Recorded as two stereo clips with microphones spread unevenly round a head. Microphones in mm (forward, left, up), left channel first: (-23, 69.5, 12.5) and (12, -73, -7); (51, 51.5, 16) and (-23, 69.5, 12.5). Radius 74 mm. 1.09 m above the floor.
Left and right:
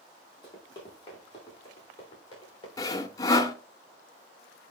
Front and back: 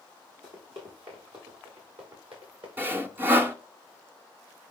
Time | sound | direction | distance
0.4 | running footsteps | 165° left | 5 m
2.8 | sawing | 125° left | 0.8 m